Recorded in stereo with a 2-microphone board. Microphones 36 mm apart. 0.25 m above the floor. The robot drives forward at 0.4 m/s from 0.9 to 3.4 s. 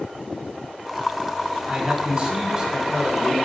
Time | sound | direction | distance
1.7 | a man speaking | 30° right (ahead or behind) | 1.1 m